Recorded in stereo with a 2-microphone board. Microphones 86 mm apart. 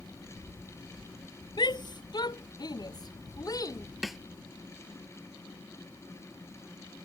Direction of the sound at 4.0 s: 5° right (ahead or behind).